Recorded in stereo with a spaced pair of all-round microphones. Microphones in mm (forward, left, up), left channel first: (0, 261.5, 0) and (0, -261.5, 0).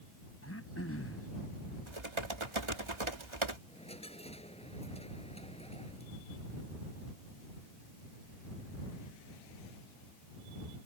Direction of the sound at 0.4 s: 25° left (ahead or behind).